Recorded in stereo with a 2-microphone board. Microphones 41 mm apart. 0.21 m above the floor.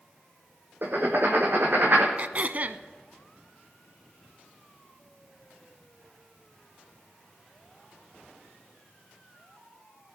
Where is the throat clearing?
40° right (ahead or behind), 0.5 m.